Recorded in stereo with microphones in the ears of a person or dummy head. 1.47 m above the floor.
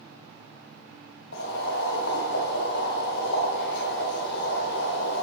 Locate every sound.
1.3 s boiling: 60° left (ahead or behind), 1.6 m